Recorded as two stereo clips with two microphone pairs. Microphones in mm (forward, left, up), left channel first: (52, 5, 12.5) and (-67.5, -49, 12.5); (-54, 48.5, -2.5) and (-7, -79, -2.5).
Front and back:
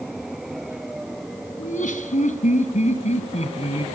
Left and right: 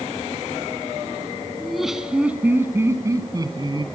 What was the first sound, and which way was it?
Laughter, 25° left.